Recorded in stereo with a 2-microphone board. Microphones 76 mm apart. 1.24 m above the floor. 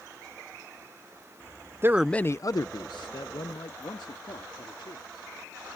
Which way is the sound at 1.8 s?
35° right (ahead or behind).